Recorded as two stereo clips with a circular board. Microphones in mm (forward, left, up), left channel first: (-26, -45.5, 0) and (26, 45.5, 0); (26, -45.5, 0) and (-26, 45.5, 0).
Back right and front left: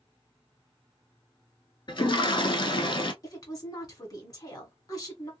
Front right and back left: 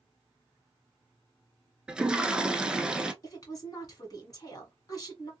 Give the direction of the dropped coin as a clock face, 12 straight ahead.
I don't hear a dropped coin.